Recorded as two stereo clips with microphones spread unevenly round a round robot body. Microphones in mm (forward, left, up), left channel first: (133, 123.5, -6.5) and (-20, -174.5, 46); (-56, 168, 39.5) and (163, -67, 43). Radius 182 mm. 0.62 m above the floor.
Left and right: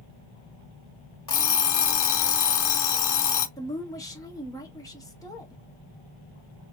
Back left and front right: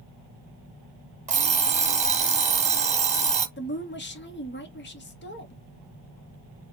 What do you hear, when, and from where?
1.3 s an alarm clock: 20° left, 1.4 m
3.6 s a woman speaking: 120° left, 1.1 m